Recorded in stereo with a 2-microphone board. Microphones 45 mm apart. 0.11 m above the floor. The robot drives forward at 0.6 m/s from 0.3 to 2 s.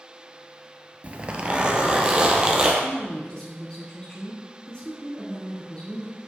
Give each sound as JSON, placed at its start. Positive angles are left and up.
{"t": 1.0, "sound": "a zipper", "side_deg": -35, "distance_m": 0.6}
{"t": 2.8, "sound": "a woman speaking", "side_deg": 20, "distance_m": 1.6}